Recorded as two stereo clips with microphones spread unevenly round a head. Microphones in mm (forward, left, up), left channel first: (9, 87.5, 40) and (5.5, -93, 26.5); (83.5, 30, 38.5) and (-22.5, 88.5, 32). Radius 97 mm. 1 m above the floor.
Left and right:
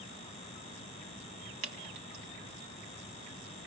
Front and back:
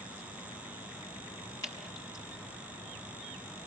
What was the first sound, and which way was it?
Dripping, 95° right.